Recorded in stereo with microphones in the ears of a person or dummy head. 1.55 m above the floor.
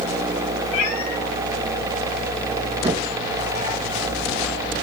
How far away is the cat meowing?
About 4.5 m.